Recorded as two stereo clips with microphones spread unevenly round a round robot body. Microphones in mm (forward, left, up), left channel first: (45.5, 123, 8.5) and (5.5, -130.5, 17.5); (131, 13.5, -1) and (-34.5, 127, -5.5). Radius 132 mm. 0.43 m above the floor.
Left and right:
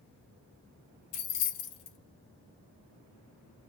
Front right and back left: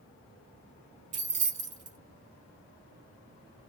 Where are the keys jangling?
100° left, 0.7 m.